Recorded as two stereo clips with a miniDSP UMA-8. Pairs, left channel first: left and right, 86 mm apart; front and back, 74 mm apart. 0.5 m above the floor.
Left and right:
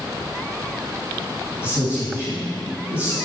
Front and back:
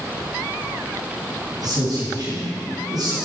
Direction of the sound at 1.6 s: 165° right.